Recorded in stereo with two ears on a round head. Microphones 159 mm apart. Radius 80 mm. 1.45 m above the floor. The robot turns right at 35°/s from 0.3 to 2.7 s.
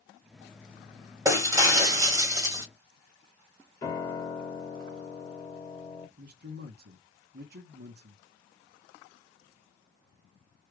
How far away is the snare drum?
No snare drum in this recording.